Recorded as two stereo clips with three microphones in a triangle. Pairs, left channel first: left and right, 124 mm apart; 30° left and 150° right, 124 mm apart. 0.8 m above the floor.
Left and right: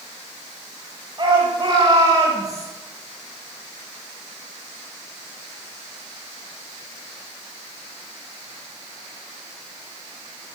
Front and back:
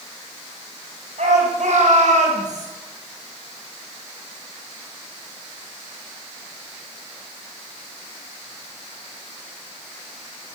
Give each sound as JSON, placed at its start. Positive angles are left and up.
{"t": 1.2, "sound": "a shout", "azimuth_deg": -145, "distance_m": 5.5}